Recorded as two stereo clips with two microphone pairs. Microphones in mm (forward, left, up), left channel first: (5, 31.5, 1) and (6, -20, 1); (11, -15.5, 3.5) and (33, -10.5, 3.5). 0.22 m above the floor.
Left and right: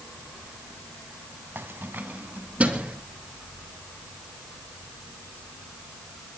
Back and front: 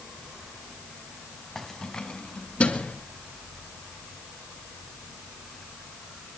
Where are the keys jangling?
90° right, 1.2 m; by 3.0 s 155° right, 2.5 m.